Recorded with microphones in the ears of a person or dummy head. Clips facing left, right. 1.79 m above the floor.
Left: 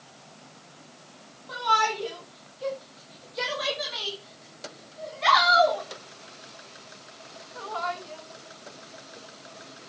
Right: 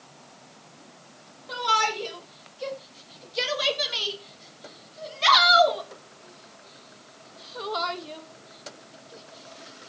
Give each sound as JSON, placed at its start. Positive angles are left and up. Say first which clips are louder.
{"t": 1.5, "sound": "a shout", "louder": "left 1 dB", "side_deg": -30, "distance_m": 7.0}